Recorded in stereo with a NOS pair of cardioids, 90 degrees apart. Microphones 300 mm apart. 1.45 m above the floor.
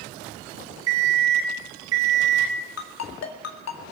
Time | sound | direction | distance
0.9 | an alarm clock | 55° right | 3.5 m
2.8 | a ringtone | 60° left | 2 m